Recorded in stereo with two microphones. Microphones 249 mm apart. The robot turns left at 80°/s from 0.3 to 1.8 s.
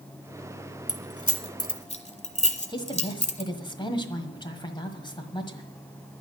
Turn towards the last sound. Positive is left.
turn(degrees=20)  # may be behind; listen again after turning